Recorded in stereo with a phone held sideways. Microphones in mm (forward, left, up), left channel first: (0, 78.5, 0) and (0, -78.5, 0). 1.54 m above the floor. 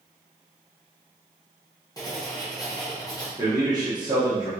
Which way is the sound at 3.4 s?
25° right (ahead or behind).